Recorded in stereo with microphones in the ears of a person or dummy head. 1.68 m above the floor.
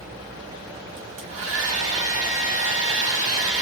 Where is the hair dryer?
50° right (ahead or behind), 1.2 m.